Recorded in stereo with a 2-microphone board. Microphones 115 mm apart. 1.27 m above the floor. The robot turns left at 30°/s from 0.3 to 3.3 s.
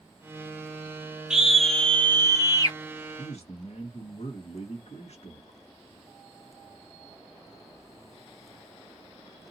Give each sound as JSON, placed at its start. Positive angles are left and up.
{"t": 1.3, "sound": "a scream", "azimuth_deg": -175, "distance_m": 0.9}
{"t": 3.2, "sound": "a man speaking", "side_deg": 75, "distance_m": 1.4}